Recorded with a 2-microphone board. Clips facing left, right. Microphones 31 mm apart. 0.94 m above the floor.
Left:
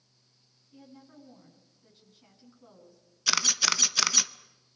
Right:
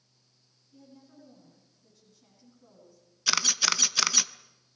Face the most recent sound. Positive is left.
turn(degrees=0)  # may be behind; listen again after turning